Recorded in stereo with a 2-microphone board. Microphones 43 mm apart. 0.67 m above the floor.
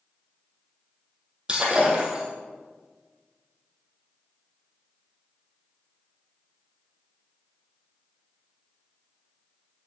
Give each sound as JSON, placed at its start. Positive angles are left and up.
{"t": 1.5, "sound": "breaking glass", "side_deg": -25, "distance_m": 2.5}